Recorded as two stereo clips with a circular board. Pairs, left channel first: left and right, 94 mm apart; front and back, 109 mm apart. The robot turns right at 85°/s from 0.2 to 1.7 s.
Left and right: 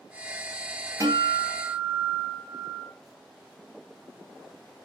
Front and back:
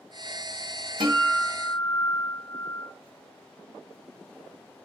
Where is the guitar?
145° right, 2.5 m; by 2.9 s 85° right, 2.5 m.